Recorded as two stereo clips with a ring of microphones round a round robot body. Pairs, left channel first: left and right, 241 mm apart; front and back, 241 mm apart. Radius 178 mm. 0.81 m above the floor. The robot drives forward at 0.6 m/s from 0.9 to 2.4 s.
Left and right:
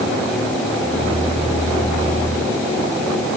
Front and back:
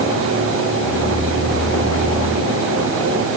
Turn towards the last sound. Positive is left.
No sound to turn to.